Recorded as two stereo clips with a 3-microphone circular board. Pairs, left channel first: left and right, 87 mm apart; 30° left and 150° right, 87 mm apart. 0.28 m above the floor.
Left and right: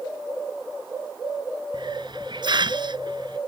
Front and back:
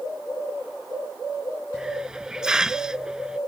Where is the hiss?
70° right.